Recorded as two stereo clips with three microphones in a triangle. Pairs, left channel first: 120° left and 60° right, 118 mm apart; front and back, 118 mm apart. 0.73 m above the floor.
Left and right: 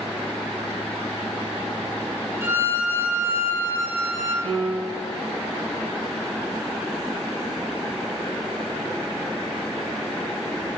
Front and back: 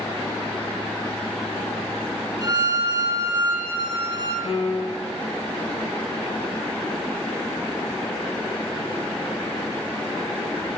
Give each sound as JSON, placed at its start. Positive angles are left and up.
{"t": 2.4, "sound": "a violin", "azimuth_deg": -130, "distance_m": 2.0}
{"t": 4.4, "sound": "a piano", "azimuth_deg": -35, "distance_m": 2.0}